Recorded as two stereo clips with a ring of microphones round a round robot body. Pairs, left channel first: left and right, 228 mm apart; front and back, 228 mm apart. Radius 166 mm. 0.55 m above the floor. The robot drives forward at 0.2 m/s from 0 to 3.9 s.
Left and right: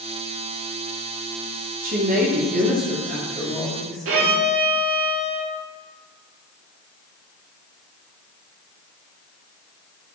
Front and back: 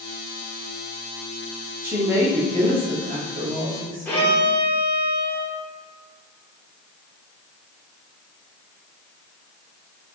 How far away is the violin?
About 0.6 m.